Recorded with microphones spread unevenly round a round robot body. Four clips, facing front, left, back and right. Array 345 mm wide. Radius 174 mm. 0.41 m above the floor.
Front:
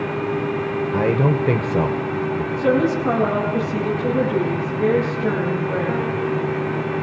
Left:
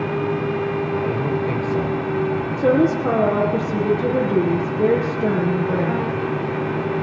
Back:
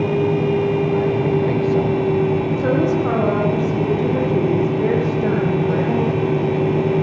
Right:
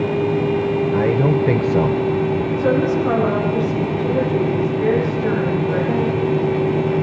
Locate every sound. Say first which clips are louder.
0.9 s a man speaking: right 5 dB, back 1 dB; 40° right, 1.9 m; by 2.5 s 75° right, 1.7 m
2.6 s a woman speaking: left 2 dB, front 3 dB; 105° left, 7.5 m